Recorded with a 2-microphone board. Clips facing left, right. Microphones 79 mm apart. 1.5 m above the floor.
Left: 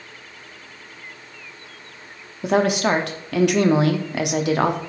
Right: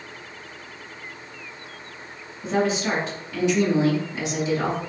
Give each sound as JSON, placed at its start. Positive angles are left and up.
{"t": 2.4, "sound": "a woman speaking", "side_deg": 75, "distance_m": 0.6}